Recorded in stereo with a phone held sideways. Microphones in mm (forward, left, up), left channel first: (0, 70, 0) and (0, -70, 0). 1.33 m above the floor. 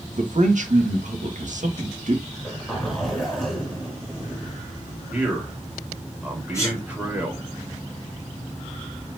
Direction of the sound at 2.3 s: Centre (ahead or behind).